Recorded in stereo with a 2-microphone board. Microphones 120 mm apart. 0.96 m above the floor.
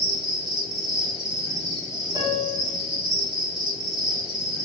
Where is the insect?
40° right (ahead or behind), 0.8 m.